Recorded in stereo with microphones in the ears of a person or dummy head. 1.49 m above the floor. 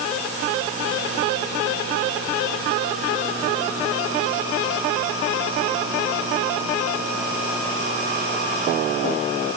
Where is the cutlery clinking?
I don't hear cutlery clinking.